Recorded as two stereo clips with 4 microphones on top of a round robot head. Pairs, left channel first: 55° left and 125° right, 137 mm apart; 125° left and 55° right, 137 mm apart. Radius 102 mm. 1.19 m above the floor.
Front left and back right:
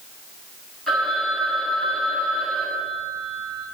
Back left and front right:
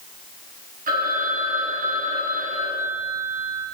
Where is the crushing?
No crushing in this recording.